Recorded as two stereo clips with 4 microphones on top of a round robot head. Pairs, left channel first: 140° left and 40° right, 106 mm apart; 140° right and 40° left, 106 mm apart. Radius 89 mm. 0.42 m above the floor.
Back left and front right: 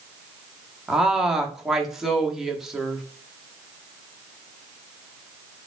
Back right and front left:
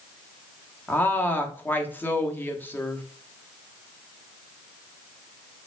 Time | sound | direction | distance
0.9 | a woman speaking | 120° right | 1.1 m